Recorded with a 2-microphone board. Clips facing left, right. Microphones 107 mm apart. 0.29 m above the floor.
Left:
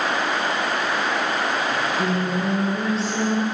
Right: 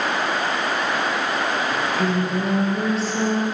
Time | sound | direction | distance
1.7 | singing | centre (ahead or behind) | 4.5 m